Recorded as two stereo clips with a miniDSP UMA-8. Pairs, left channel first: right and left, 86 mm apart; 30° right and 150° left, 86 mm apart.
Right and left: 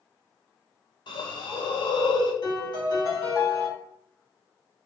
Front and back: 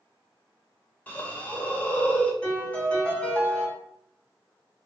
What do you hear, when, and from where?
1.1 s a hiss: 100° right, 0.7 m
2.4 s a piano: 105° right, 1.6 m